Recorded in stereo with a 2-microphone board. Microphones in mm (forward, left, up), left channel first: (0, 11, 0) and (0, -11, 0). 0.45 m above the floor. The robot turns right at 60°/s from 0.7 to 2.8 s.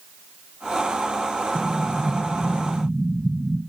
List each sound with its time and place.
1.6 s an explosion: 20° left, 3.5 m; by 3.6 s 95° left, 3.5 m